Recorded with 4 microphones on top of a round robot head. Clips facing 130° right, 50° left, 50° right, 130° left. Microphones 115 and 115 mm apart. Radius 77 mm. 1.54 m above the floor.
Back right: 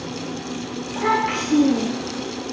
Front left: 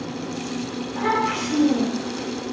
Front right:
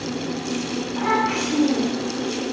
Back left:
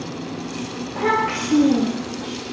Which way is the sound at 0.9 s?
175° left.